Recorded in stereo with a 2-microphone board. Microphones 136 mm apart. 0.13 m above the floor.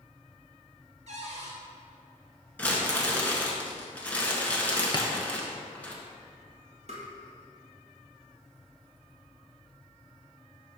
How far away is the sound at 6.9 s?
About 1.7 m.